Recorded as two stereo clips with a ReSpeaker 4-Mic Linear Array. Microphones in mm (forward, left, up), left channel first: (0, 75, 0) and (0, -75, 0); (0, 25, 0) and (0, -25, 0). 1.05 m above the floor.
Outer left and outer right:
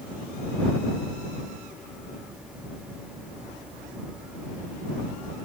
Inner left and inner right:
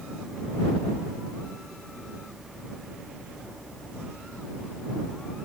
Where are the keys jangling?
No keys jangling in this recording.